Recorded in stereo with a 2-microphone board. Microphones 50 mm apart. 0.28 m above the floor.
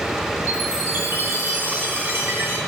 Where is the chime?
45° right (ahead or behind), 1.3 m.